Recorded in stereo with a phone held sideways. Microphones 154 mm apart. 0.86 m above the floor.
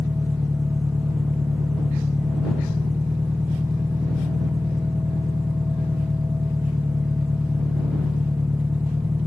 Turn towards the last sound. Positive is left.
turn(degrees=-10)  # may be behind; listen again after turning